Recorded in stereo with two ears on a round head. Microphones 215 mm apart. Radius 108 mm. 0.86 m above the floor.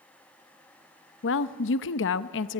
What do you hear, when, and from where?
1.2 s a woman speaking: 55° left (ahead or behind), 0.9 m